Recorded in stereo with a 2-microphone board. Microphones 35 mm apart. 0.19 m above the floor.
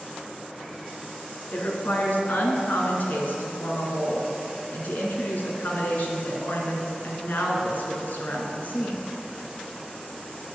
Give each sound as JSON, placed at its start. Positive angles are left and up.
{"t": 1.5, "sound": "a woman speaking", "side_deg": 55, "distance_m": 2.0}